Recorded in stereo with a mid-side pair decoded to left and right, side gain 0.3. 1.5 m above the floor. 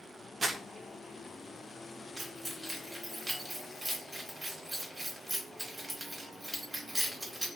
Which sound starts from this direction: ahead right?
Crumpling, at 0.4 s.